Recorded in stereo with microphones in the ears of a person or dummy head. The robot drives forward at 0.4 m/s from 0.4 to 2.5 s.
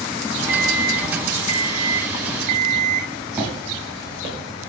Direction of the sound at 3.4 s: 10° right (ahead or behind).